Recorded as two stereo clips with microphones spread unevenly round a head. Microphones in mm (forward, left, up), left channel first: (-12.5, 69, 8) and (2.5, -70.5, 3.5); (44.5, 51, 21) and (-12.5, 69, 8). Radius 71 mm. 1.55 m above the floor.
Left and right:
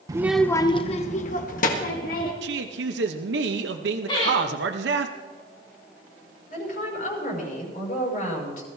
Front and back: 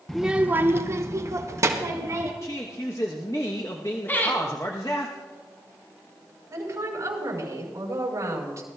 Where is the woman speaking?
130° left, 5.5 m.